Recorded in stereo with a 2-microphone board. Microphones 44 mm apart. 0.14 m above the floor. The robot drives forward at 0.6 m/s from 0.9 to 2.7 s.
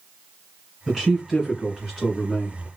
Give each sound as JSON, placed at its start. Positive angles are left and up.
{"t": 0.9, "sound": "a man speaking", "side_deg": 5, "distance_m": 1.9}